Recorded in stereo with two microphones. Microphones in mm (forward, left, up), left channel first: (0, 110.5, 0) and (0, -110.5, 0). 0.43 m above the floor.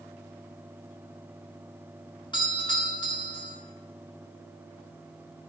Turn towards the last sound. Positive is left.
turn(degrees=20)  # may be behind; listen again after turning